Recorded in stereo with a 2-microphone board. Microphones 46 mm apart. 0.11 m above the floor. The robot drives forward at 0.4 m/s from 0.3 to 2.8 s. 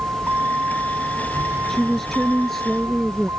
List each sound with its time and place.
0.0 s a vehicle: 35° right (ahead or behind); by 3.4 s 65° right (ahead or behind)
1.7 s a woman speaking: 5° left (ahead or behind)